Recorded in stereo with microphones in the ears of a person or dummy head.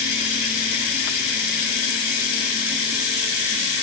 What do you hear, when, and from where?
0.0 s running water: 75° left (ahead or behind), 4.5 m